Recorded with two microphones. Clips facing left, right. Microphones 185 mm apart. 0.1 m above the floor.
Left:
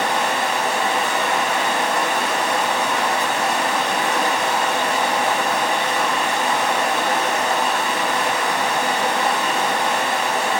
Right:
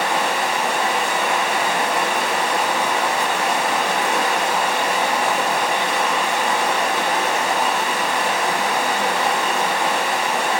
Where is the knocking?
No knocking in this recording.